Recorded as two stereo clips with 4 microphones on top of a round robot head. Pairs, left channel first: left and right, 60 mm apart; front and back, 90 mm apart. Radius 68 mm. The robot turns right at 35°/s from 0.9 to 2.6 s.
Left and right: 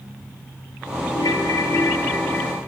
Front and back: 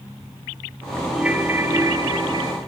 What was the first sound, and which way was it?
A ringtone, 100° left.